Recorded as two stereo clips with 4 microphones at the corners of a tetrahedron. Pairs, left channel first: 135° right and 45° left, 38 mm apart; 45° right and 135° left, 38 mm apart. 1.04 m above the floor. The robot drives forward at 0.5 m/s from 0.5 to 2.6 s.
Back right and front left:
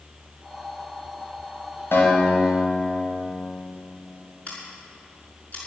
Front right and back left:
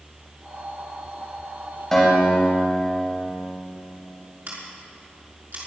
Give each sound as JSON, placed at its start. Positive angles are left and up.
{"t": 1.9, "sound": "a guitar", "azimuth_deg": -125, "distance_m": 5.5}
{"t": 4.5, "sound": "scissors", "azimuth_deg": 175, "distance_m": 5.5}